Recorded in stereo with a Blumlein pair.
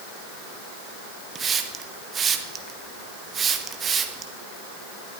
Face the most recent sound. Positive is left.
turn(degrees=-20)